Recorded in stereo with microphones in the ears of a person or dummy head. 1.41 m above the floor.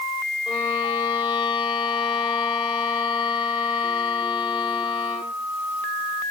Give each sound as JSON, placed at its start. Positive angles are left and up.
{"t": 0.5, "sound": "a violin", "side_deg": 25, "distance_m": 3.0}